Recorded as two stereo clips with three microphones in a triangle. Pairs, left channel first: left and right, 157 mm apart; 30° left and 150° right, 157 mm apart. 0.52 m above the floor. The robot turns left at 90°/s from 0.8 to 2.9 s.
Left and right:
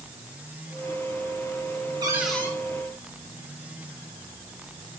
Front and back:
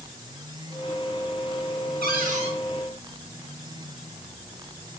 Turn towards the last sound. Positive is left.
turn(degrees=125)